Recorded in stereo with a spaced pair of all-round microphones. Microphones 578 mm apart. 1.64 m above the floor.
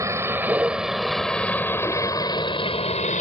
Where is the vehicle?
5° right (ahead or behind); by 3.2 s 15° left (ahead or behind).